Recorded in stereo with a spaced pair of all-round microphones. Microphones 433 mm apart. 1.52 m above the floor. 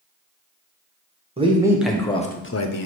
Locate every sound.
1.4 s a man speaking: 15° right (ahead or behind), 0.9 m; by 2.9 s 55° left (ahead or behind), 0.5 m